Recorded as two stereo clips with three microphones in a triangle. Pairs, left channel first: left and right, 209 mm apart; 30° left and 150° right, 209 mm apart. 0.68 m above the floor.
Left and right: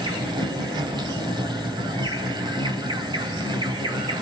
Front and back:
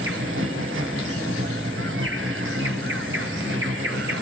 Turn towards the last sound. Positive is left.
turn(degrees=-160)